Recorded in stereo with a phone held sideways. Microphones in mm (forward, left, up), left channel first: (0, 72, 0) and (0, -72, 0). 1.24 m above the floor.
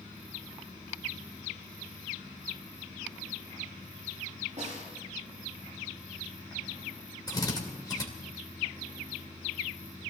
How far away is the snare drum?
About 9 m.